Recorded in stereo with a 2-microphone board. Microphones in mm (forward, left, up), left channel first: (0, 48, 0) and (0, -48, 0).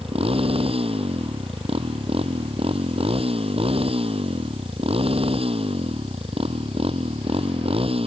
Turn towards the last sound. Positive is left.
turn(degrees=-90)